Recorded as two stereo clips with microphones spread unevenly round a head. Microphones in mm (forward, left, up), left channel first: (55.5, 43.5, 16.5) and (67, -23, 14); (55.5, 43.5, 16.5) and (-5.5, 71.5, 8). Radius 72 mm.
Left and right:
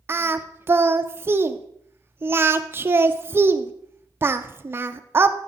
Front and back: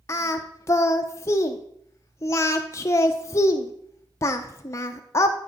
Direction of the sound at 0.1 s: 55° right.